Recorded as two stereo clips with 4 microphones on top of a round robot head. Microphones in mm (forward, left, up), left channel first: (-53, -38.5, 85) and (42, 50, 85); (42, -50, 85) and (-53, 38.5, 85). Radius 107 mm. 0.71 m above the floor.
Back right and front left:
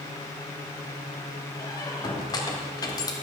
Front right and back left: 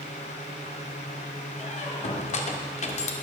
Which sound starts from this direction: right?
A squeak, at 1.6 s.